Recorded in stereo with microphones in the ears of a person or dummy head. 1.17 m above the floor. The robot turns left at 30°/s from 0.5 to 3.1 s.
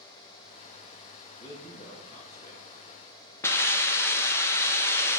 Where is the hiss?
10° left (ahead or behind), 0.5 m.